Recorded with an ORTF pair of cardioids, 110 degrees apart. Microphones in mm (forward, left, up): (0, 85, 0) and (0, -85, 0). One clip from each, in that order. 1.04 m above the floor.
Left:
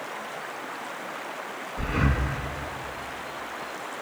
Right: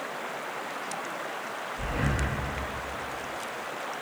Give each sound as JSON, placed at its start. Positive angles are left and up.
{"t": 1.8, "sound": "breathing", "azimuth_deg": 60, "distance_m": 1.2}